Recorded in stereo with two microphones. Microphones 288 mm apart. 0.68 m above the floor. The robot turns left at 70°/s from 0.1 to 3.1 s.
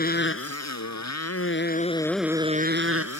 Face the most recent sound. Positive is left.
turn(degrees=-65)